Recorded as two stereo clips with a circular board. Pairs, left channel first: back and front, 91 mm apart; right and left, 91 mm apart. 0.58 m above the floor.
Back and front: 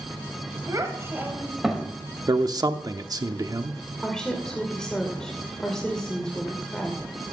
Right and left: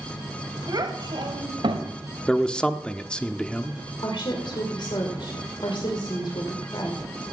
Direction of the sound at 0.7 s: 50° left.